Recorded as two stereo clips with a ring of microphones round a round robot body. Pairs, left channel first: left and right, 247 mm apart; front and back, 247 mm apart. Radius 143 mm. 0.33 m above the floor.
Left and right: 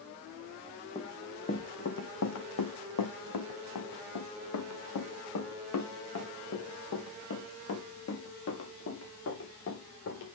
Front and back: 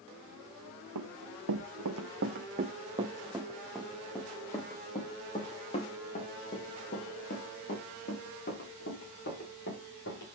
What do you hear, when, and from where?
0.9 s running footsteps: 165° left, 1.7 m; by 10.3 s 55° left, 7 m